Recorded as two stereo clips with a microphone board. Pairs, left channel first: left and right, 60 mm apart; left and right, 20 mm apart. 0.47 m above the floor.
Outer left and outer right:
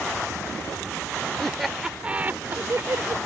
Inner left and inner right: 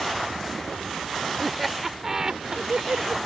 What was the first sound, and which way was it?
Laughter, 5° left (ahead or behind).